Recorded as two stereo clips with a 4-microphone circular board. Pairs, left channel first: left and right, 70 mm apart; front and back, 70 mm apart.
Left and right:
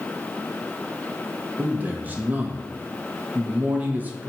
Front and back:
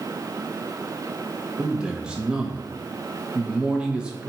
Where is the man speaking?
120° right, 0.5 m.